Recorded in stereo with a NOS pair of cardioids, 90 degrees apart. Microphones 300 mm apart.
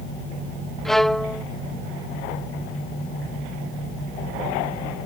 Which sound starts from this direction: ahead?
A violin, at 0.8 s.